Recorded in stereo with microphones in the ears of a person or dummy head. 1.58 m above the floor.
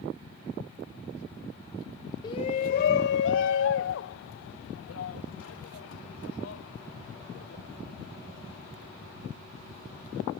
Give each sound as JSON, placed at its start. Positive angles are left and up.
{"t": 2.2, "sound": "a shout", "side_deg": 35}